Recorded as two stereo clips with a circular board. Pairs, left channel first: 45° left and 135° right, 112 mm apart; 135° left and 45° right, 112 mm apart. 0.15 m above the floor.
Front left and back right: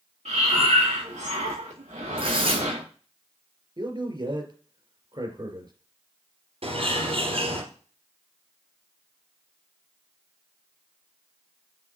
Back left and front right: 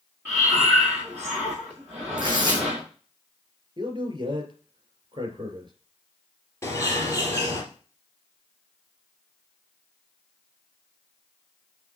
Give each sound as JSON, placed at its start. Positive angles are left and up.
{"t": 0.2, "sound": "breathing", "azimuth_deg": -120, "distance_m": 6.5}
{"t": 2.2, "sound": "tearing paper", "azimuth_deg": -100, "distance_m": 6.0}
{"t": 3.8, "sound": "a man speaking", "azimuth_deg": -90, "distance_m": 3.0}
{"t": 6.6, "sound": "a bird", "azimuth_deg": -160, "distance_m": 3.0}